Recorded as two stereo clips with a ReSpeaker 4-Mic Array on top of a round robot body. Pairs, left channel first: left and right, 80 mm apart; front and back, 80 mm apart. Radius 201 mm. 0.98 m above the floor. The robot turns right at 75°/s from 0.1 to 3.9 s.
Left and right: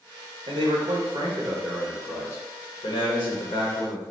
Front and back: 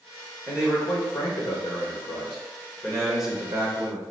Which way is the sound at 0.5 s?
110° right.